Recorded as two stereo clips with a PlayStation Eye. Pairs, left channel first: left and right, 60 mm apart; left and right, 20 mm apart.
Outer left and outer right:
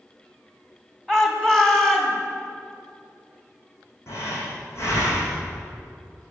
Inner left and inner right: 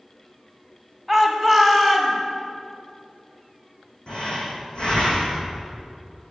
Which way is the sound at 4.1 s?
50° left (ahead or behind).